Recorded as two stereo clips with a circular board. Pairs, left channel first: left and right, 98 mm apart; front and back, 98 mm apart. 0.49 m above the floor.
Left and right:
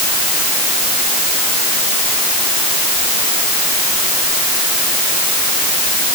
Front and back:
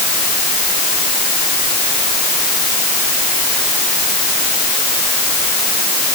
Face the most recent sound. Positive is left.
No sound to turn to.